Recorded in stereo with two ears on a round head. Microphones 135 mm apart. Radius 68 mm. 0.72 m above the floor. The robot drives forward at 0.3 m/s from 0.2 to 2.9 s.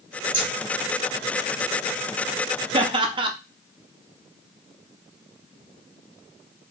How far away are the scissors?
About 1.8 m.